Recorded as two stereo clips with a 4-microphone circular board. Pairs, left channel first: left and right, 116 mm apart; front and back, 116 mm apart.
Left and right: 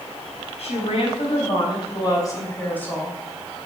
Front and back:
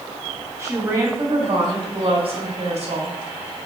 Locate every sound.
0.6 s a woman speaking: 115° left, 4 m; by 3.2 s 175° left, 3 m